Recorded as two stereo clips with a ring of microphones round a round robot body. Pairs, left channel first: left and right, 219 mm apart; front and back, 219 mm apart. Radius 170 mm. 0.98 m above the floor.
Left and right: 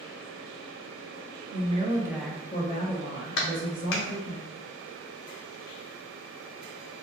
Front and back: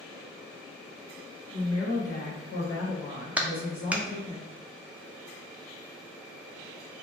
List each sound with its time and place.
1.5 s a woman speaking: 35° right, 0.9 m; by 4.4 s 75° left, 1.6 m
3.4 s a clap: 95° left, 0.6 m